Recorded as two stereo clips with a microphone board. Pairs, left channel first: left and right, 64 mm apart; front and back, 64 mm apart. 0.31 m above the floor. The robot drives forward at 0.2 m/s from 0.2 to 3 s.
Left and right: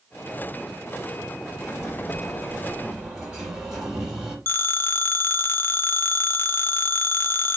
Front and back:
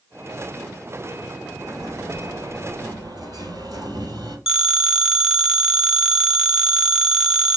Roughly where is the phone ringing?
Left.